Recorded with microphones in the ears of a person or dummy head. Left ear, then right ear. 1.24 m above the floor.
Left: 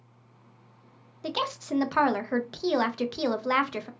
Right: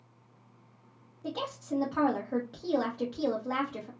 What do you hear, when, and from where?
1.2 s a woman speaking: 75° left (ahead or behind), 0.5 m